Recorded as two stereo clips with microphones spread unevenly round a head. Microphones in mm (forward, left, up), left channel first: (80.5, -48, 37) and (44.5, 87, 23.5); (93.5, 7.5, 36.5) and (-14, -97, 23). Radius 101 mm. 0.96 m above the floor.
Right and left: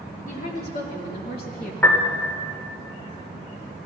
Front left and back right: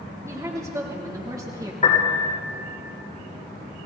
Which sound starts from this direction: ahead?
A piano, at 1.8 s.